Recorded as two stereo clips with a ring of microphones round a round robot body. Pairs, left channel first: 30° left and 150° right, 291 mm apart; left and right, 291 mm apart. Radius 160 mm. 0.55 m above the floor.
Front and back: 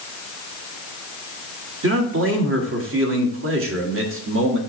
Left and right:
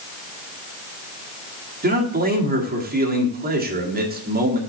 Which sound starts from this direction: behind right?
A man speaking, at 1.8 s.